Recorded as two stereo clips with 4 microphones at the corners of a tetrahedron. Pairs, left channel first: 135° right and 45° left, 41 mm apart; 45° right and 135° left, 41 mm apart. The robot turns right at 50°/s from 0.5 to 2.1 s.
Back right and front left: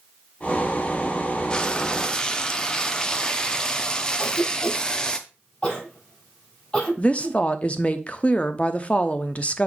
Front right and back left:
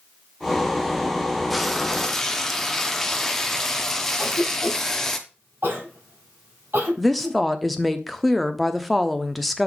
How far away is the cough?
About 3.5 m.